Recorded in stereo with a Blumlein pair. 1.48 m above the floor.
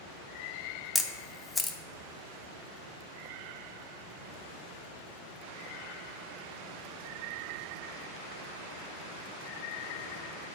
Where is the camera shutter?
15° left, 0.5 m.